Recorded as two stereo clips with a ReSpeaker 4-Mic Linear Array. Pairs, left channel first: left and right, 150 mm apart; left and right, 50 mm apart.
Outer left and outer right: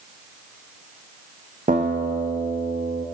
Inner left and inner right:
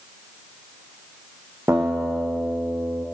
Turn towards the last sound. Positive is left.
turn(degrees=-65)  # may be behind; listen again after turning